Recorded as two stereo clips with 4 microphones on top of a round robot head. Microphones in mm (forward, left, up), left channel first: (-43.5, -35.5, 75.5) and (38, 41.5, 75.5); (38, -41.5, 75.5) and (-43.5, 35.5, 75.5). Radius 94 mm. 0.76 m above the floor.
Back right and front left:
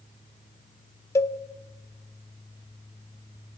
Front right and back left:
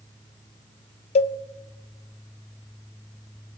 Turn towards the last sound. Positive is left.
turn(degrees=-70)